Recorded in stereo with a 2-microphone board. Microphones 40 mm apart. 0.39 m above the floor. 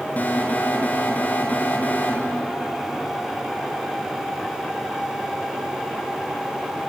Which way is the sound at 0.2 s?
45° left (ahead or behind).